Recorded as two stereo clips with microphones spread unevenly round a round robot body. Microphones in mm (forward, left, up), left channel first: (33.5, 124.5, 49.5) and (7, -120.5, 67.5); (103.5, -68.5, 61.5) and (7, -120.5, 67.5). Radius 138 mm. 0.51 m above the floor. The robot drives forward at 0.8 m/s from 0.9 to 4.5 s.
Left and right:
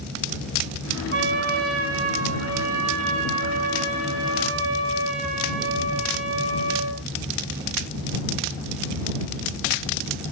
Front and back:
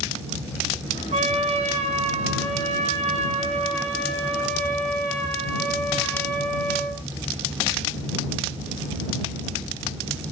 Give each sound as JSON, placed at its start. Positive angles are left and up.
{"t": 1.1, "sound": "a trumpet", "azimuth_deg": -145, "distance_m": 3.0}